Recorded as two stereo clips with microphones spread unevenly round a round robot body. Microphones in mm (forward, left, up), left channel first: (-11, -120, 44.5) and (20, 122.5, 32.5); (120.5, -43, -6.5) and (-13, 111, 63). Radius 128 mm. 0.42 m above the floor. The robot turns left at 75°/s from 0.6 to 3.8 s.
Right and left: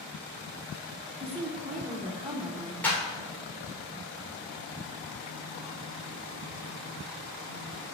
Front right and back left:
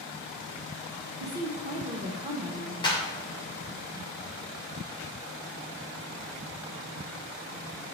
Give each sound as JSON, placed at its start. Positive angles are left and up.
{"t": 1.2, "sound": "a woman speaking", "azimuth_deg": 120, "distance_m": 0.8}
{"t": 2.8, "sound": "a clap", "azimuth_deg": -15, "distance_m": 1.4}